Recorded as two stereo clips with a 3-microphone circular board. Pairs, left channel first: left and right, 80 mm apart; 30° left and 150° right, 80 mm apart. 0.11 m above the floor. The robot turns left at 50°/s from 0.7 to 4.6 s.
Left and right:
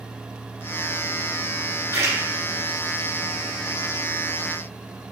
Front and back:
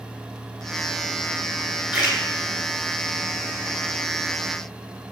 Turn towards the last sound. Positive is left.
turn(degrees=150)